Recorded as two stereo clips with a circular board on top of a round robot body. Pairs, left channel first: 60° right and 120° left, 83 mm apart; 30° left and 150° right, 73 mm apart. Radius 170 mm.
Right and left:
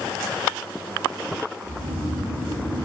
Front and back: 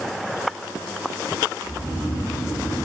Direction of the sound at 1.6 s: 145° left.